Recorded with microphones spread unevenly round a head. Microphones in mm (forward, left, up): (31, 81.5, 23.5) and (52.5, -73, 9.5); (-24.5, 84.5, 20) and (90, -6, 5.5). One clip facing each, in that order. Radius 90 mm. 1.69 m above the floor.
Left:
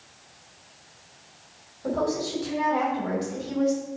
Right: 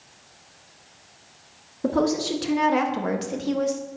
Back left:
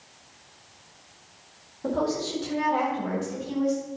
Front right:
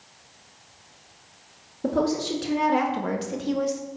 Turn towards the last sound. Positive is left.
turn(degrees=-50)